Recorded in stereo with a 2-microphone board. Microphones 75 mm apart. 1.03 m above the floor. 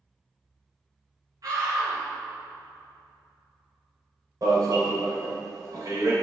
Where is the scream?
55° right (ahead or behind), 3 m.